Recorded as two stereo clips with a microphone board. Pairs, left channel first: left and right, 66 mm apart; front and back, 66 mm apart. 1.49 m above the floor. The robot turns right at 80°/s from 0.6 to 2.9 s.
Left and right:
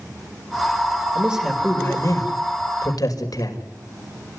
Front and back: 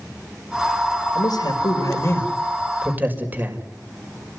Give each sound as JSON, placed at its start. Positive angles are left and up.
{"t": 1.1, "sound": "a man speaking", "azimuth_deg": -25, "distance_m": 5.5}